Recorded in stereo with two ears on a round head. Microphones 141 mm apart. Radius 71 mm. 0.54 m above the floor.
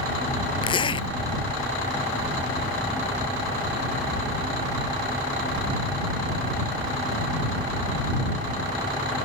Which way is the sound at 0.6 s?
35° left (ahead or behind).